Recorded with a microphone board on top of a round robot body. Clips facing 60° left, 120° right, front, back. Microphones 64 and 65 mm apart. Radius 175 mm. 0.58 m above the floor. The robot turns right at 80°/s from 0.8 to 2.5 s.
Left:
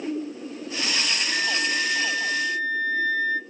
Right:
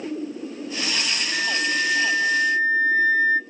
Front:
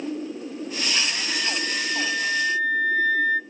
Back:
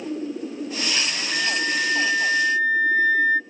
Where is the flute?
150° left, 0.9 m; by 3.4 s 115° right, 0.9 m.